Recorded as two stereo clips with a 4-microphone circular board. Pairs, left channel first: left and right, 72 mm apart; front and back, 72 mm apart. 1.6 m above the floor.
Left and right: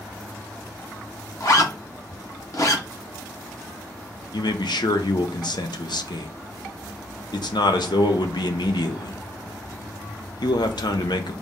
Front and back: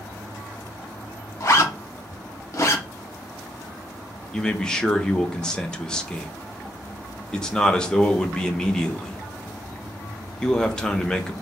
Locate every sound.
1.4 s a zipper: 50° left, 1.0 m
4.3 s a man speaking: 80° left, 0.8 m